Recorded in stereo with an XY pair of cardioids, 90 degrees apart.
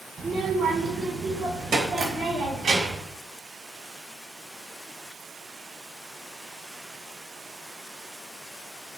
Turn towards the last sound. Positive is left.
turn(degrees=-60)